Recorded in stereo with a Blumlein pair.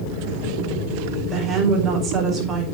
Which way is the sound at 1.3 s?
25° right.